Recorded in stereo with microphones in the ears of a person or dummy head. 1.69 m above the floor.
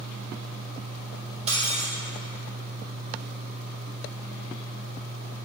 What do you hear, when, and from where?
1.5 s breaking glass: 40° right (ahead or behind), 2.0 m